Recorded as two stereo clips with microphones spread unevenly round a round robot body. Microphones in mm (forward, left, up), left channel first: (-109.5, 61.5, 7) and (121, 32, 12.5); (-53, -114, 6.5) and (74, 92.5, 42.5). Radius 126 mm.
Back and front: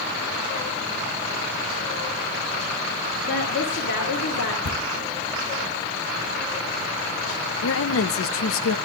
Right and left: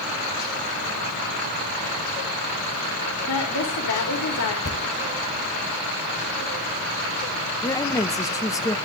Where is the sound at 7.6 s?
170° left, 0.9 m.